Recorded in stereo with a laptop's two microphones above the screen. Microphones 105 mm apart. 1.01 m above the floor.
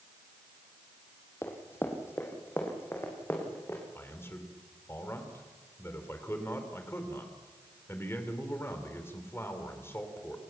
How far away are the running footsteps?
About 2.5 m.